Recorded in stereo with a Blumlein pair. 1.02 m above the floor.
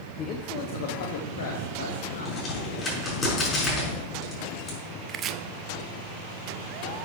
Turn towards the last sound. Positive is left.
turn(degrees=-30)